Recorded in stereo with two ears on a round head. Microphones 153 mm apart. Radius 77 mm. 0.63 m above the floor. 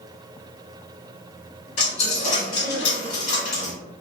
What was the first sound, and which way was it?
A dropped coin, 45° left (ahead or behind).